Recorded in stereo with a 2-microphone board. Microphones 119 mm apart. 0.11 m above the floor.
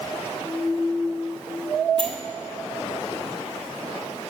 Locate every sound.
2.0 s a sliding door: 45° right (ahead or behind), 1.0 m